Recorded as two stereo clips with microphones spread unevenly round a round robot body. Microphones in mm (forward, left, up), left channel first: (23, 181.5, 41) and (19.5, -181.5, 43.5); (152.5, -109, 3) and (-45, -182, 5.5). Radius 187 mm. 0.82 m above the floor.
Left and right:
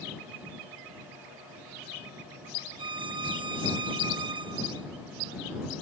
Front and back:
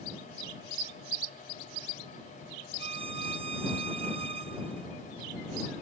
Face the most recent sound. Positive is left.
turn(degrees=-150)